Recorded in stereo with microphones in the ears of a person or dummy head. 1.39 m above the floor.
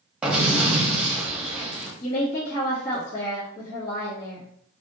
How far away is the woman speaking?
About 1.7 m.